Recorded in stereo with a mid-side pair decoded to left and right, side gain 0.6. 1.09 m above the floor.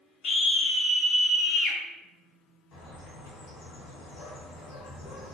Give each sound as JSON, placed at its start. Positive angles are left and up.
{"t": 0.2, "sound": "a scream", "azimuth_deg": 60, "distance_m": 1.4}
{"t": 2.7, "sound": "a bird", "azimuth_deg": 65, "distance_m": 1.8}